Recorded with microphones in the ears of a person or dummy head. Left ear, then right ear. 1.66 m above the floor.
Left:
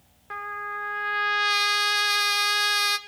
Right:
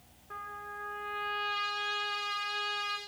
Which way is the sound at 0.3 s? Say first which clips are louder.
Left 10 dB; 65° left (ahead or behind).